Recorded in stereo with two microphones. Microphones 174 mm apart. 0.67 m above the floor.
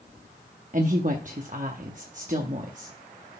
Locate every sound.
0.7 s a woman speaking: 50° right (ahead or behind), 0.7 m